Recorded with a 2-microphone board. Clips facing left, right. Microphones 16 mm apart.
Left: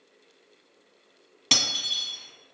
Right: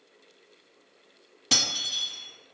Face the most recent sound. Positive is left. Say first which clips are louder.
# left 1 dB
turn(degrees=40)  # may be behind; listen again after turning